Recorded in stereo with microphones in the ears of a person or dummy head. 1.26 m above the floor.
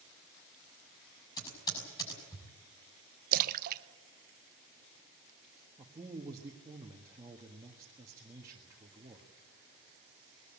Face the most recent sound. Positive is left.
turn(degrees=-15)  # may be behind; listen again after turning